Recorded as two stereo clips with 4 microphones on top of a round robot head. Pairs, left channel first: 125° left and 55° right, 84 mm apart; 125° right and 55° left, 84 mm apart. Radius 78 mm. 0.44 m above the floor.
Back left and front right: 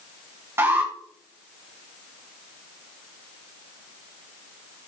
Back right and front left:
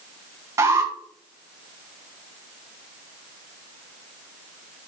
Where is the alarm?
5° left, 4 m.